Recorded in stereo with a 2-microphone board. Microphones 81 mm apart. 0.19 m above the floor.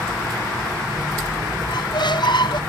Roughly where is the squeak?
Left.